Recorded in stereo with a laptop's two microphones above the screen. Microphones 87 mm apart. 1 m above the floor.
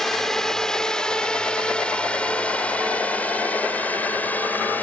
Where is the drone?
5° left (ahead or behind); by 4.8 s 20° left (ahead or behind).